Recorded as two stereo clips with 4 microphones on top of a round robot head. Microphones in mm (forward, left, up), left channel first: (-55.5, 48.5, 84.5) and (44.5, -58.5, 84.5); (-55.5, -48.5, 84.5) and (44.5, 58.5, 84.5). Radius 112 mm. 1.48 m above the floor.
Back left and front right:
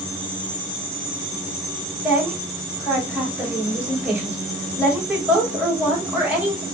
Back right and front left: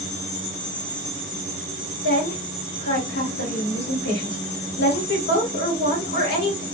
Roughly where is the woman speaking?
Behind right.